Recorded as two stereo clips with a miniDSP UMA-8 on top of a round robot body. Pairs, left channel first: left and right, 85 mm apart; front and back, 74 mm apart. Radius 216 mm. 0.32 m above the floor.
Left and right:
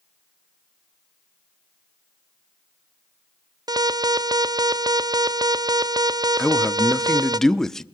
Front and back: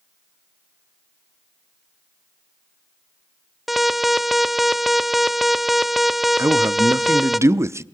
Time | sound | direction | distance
3.7 | an alarm | 90° right | 0.9 m
6.4 | a man speaking | 170° left | 1.0 m